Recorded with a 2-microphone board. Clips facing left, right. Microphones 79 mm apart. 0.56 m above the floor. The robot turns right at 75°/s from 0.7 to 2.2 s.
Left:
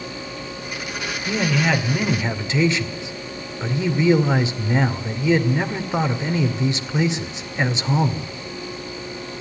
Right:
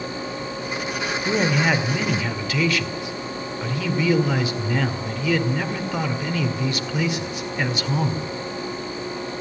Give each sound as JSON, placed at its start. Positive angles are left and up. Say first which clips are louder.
{"t": 1.2, "sound": "a man speaking", "louder": "even", "azimuth_deg": -45, "distance_m": 2.0}